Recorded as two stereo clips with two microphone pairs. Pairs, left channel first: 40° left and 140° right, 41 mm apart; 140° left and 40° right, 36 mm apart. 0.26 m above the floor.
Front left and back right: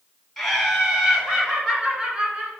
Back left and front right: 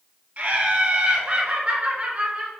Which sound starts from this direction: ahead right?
Laughter, at 0.4 s.